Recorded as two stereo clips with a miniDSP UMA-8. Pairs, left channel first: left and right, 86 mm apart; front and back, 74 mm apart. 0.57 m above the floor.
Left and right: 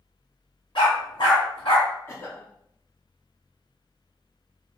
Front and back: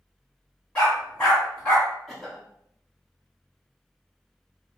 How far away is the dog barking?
About 1.9 m.